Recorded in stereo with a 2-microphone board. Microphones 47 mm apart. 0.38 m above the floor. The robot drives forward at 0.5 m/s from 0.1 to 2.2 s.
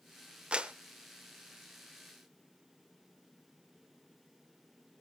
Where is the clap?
25° right (ahead or behind), 0.6 m.